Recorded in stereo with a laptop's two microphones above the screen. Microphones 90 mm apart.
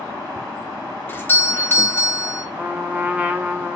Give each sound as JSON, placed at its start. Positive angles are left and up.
{"t": 1.1, "sound": "a doorbell", "side_deg": 25, "distance_m": 0.7}
{"t": 2.5, "sound": "a trumpet", "side_deg": -20, "distance_m": 0.8}